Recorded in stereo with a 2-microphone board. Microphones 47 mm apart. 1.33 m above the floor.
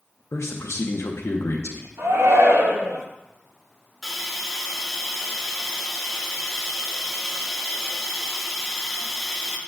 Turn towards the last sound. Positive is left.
turn(degrees=5)  # may be behind; listen again after turning